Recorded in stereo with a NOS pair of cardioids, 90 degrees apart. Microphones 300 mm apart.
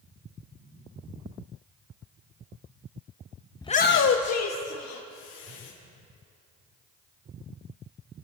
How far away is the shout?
About 0.6 m.